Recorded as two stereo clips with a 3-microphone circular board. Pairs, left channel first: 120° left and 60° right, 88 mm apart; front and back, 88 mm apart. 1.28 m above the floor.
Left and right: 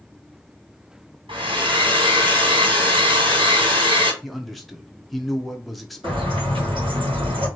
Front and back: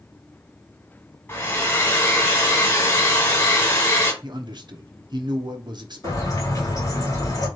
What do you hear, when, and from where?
1.3 s a hair dryer: 65° right, 2.5 m
4.2 s a man speaking: 150° right, 1.0 m
6.0 s a bird: 50° right, 2.5 m